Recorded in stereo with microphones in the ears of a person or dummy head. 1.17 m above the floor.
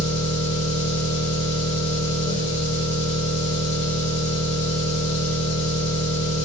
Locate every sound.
0.0 s an engine running: 85° left, 2.5 m